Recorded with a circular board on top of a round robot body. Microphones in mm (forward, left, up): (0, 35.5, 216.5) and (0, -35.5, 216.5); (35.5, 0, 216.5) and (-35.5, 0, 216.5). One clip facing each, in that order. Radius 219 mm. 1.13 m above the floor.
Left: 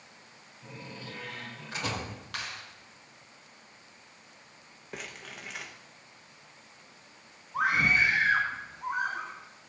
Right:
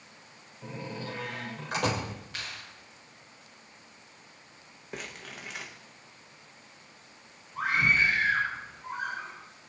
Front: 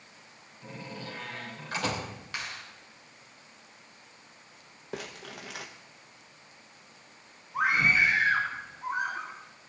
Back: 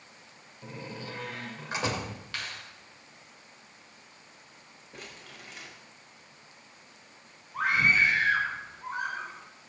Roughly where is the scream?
Left.